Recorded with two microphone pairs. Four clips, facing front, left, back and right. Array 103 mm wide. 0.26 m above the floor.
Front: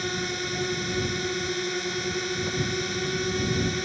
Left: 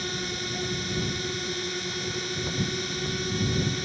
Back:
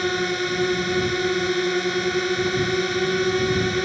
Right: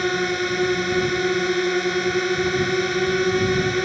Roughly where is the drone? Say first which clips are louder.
Right 12 dB, back 7 dB; behind right.